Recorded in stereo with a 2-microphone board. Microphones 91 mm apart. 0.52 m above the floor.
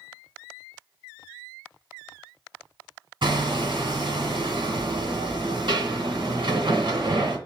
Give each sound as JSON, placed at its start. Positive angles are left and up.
{"t": 3.2, "sound": "hammering", "side_deg": -60, "distance_m": 1.9}